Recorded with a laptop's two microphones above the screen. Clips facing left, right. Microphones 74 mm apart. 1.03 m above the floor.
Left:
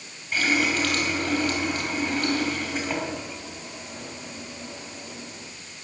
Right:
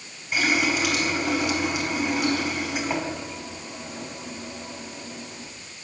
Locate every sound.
0.3 s a running tap: 10° right (ahead or behind), 4.5 m